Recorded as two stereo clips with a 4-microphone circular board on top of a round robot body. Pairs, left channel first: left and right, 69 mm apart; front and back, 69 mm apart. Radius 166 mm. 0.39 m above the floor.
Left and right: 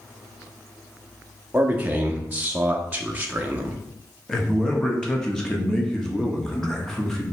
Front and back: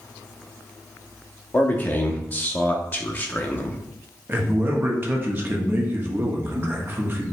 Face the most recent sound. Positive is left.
turn(degrees=165)